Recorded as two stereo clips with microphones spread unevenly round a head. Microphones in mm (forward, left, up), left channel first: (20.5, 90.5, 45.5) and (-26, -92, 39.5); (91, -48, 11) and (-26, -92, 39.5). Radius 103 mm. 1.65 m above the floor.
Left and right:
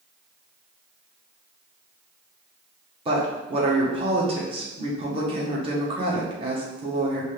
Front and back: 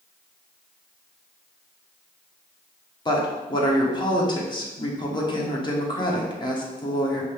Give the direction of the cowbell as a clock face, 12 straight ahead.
No cowbell in this recording.